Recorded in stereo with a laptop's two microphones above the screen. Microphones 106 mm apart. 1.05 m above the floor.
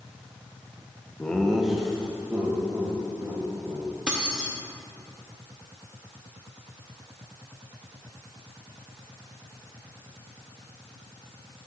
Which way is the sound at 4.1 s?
10° right (ahead or behind).